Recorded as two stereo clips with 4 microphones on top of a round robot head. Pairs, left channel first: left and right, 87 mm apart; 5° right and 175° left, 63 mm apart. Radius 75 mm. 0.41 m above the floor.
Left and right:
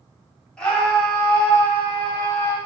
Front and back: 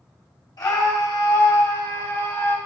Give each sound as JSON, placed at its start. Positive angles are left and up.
{"t": 0.6, "sound": "a scream", "azimuth_deg": 10, "distance_m": 3.5}